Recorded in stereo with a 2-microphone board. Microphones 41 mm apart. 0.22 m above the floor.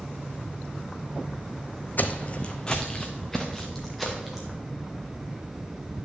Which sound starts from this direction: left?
Footsteps, at 2.0 s.